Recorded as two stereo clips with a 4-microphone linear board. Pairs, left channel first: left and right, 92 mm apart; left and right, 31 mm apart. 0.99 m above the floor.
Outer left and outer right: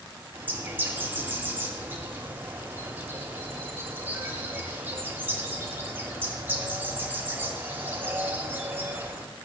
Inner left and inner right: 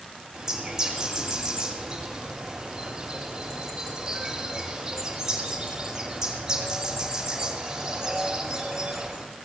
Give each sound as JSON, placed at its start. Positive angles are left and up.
{"t": 0.3, "sound": "a bird", "side_deg": -20, "distance_m": 2.5}